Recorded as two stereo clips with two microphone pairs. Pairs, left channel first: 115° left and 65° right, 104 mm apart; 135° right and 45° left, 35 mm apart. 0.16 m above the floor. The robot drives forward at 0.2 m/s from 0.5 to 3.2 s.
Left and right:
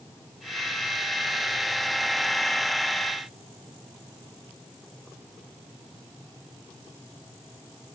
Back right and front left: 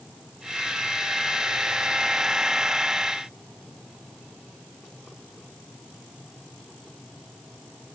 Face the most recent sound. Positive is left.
No sound to turn to.